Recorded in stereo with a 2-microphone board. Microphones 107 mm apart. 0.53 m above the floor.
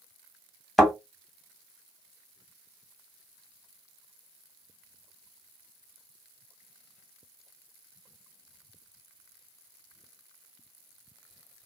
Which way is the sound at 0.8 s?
Centre (ahead or behind).